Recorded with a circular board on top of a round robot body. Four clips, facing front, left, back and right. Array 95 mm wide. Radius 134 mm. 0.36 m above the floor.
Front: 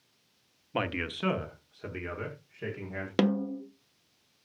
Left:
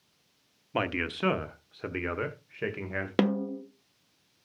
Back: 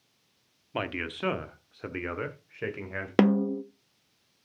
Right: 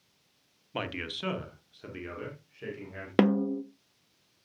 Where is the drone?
No drone in this recording.